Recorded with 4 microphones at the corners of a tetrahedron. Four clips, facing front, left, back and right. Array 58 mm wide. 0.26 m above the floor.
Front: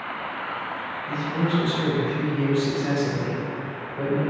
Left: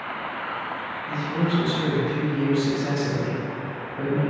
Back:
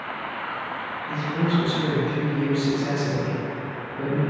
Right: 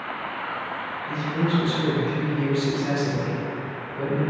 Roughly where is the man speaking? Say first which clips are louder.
Even, even; ahead.